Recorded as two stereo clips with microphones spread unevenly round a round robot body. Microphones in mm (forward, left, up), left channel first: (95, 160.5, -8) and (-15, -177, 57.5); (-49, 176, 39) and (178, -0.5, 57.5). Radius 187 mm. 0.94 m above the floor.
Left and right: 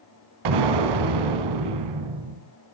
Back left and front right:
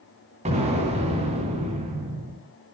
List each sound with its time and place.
0.5 s an explosion: 110° right, 2 m